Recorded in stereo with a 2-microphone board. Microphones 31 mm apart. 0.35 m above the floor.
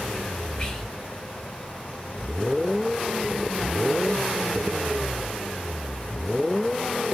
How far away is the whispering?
About 1.7 m.